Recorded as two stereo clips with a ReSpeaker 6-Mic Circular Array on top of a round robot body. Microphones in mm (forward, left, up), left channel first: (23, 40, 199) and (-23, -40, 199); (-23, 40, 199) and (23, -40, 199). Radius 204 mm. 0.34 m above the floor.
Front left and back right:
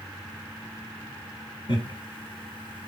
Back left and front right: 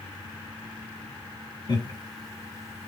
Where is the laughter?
90° left, 2.5 m; by 2.9 s 60° left, 2 m.